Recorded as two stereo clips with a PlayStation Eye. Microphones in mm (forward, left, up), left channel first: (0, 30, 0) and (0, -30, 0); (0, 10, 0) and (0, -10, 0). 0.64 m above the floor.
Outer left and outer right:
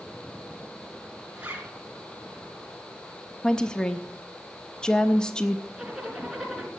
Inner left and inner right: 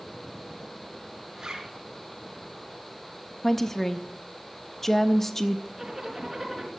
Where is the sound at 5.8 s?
5° right (ahead or behind), 3.5 m.